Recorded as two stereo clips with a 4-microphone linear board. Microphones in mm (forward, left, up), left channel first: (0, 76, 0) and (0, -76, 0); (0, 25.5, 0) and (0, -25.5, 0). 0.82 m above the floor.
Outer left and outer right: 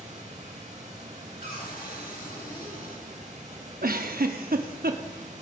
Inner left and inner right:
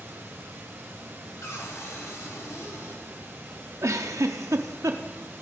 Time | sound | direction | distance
0.0 | running water | 55° right (ahead or behind) | 4 m
1.4 | a cupboard door | 85° left | 2.5 m
3.8 | a giggle | 75° right (ahead or behind) | 0.7 m